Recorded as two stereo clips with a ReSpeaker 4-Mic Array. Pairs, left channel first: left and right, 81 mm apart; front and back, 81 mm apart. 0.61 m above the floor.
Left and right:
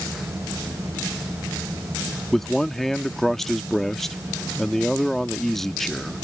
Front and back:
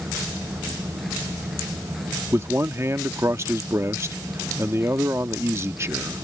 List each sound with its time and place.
2.3 s a man speaking: 170° left